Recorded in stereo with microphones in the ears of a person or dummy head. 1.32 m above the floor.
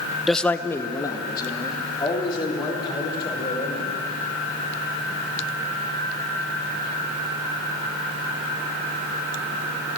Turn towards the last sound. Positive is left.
turn(degrees=30)  # may be behind; listen again after turning